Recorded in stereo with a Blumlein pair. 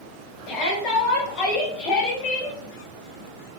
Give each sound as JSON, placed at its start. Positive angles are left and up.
{"t": 0.5, "sound": "a shout", "azimuth_deg": 40, "distance_m": 4.0}